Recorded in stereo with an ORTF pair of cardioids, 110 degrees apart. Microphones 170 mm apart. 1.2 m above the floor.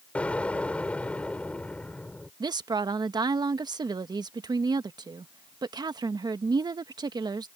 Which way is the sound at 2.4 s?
25° right.